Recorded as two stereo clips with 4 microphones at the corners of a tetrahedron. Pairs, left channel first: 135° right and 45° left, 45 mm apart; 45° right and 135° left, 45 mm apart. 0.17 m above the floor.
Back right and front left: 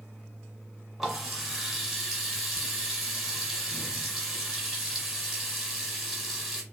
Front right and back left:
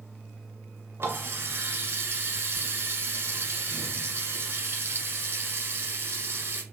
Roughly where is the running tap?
Behind left.